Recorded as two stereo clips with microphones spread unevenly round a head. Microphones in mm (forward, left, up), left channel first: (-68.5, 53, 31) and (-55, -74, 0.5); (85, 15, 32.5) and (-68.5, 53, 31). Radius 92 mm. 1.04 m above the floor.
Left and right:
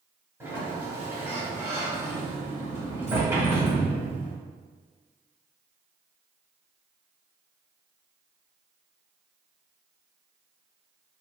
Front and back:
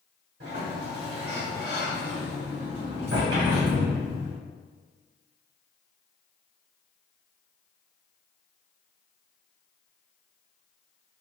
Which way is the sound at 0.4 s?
155° right.